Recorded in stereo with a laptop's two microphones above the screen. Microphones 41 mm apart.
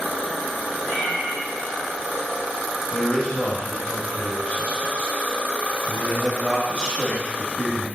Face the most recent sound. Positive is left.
turn(degrees=25)  # may be behind; listen again after turning